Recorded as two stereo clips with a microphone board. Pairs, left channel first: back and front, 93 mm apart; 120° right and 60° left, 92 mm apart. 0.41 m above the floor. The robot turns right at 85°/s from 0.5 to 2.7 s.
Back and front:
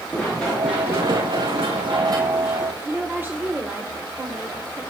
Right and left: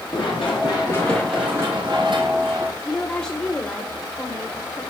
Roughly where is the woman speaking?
Ahead right.